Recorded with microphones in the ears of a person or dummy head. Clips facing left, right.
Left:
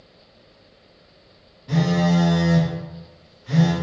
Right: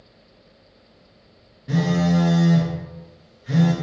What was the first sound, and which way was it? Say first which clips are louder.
A phone buzzing: even; 25° right (ahead or behind).